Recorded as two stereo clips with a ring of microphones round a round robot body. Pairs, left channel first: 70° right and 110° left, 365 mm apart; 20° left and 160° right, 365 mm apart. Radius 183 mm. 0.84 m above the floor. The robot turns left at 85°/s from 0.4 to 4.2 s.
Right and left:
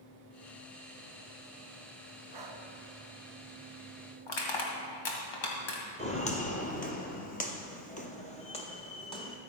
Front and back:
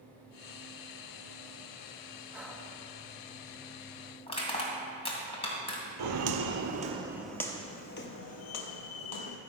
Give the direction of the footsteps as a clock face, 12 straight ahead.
5 o'clock.